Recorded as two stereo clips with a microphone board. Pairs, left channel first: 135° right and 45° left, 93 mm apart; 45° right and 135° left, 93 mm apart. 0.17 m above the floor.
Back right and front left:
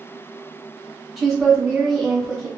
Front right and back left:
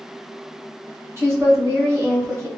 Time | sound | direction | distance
1.2 | a woman speaking | 135° left | 1.6 m